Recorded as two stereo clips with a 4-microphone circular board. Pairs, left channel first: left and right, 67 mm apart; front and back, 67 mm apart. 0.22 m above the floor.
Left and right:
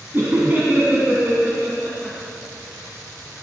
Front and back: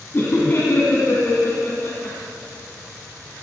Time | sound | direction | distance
0.1 | laughter | 45° right | 1.7 m